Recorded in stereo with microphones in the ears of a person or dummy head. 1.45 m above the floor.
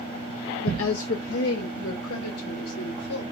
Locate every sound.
0.6 s a woman speaking: 65° left (ahead or behind), 0.6 m; by 3.2 s 80° left, 2.5 m